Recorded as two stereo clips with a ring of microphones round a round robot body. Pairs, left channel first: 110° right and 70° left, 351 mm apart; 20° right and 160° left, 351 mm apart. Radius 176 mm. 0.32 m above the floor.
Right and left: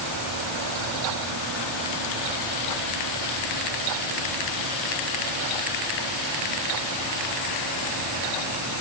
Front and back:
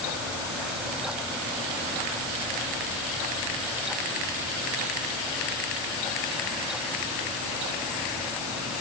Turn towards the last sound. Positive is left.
No sound to turn to.